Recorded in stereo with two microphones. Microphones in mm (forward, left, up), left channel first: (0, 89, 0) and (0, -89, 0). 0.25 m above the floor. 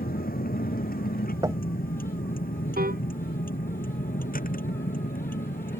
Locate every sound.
0.0 s a vehicle: 55° left (ahead or behind)
1.4 s knocking: 25° right (ahead or behind)
2.8 s a piano: 60° right (ahead or behind)